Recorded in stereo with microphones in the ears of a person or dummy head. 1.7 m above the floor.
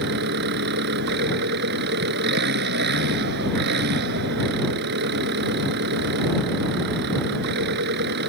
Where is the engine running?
55° right (ahead or behind).